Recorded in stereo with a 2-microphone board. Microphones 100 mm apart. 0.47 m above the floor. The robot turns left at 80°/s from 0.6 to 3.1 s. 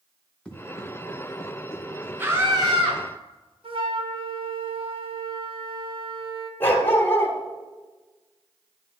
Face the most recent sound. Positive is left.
turn(degrees=20)  # may be behind; listen again after turning